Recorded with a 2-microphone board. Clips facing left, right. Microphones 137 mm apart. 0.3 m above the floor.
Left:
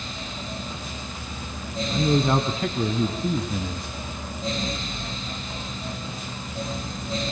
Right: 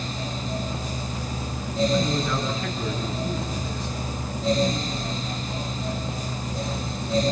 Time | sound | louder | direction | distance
1.9 | a man speaking | left 3 dB | 60° left (ahead or behind) | 3 m